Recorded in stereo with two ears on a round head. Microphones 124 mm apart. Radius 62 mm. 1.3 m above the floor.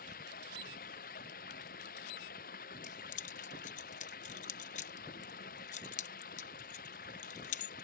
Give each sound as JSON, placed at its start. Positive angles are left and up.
{"t": 0.0, "sound": "running water", "side_deg": 70}
{"t": 2.8, "sound": "keys jangling", "side_deg": 55}